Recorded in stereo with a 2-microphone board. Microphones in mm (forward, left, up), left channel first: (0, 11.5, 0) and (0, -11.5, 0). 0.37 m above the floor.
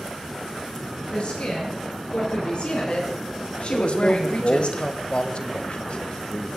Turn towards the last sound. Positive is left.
turn(degrees=55)  # may be behind; listen again after turning